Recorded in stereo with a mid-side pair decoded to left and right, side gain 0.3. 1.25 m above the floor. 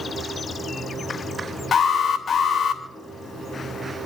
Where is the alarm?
60° left, 3 m.